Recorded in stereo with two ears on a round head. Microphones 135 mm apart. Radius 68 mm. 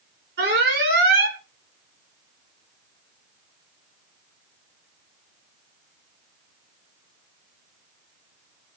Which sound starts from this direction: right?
An alarm, at 0.4 s.